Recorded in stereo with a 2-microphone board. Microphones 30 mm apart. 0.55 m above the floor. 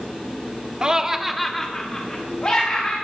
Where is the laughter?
30° right (ahead or behind), 0.9 m; by 2.9 s 30° left (ahead or behind), 2.5 m.